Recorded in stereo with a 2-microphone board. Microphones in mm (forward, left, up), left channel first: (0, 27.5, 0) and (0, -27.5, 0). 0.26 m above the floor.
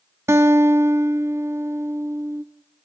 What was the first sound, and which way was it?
A guitar, 55° right (ahead or behind).